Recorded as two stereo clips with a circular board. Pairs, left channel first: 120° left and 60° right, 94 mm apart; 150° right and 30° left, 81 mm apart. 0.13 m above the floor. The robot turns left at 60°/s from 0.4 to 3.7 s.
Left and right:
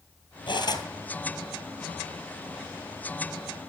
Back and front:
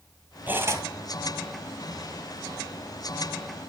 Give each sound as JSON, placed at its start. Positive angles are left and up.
{"t": 0.5, "sound": "cutlery clinking", "azimuth_deg": 95, "distance_m": 2.0}